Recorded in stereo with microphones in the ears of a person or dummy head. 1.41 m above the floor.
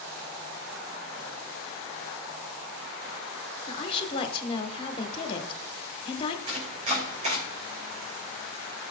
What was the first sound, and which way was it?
A woman speaking, 30° left (ahead or behind).